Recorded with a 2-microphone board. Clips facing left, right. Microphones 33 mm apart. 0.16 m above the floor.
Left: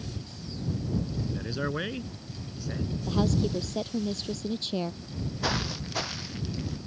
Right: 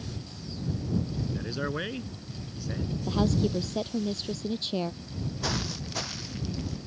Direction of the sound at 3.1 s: 5° right (ahead or behind).